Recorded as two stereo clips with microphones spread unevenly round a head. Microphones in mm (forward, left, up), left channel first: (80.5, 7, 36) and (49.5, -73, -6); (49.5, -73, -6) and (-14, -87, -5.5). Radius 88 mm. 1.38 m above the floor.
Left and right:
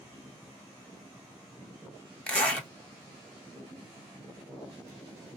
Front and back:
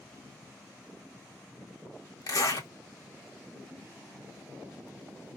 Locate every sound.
2.3 s a zipper: 10° left, 1.8 m